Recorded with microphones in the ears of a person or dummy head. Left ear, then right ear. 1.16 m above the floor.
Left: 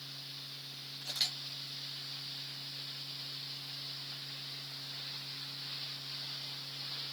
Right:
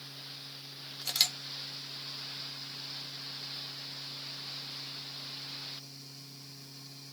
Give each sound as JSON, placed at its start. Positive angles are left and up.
{"t": 1.0, "sound": "a camera shutter", "side_deg": -80, "distance_m": 0.7}